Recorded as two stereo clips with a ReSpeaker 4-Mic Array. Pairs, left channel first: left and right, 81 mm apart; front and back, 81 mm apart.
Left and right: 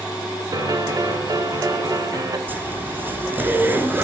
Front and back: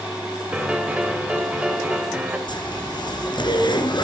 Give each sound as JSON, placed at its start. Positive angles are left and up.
{"t": 0.5, "sound": "a piano", "azimuth_deg": -110, "distance_m": 2.0}
{"t": 2.5, "sound": "a zipper", "azimuth_deg": -25, "distance_m": 2.5}